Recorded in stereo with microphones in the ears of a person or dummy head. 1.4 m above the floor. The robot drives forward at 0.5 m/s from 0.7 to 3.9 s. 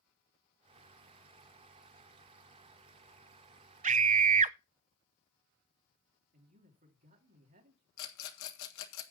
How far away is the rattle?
About 1.7 m.